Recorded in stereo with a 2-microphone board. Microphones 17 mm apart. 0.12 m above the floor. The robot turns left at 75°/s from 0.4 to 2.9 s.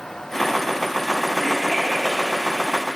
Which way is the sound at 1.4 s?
75° right (ahead or behind).